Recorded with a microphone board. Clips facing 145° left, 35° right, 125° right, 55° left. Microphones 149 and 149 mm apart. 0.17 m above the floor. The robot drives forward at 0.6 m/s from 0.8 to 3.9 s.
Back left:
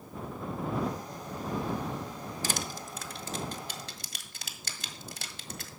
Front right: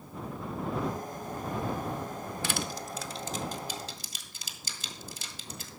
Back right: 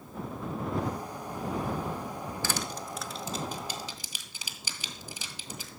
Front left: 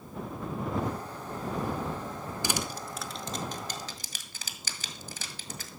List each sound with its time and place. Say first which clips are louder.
2.4 s crushing: front right 1 dB, front left 2 dB; 120° left, 0.7 m; by 5.7 s 160° left, 1.3 m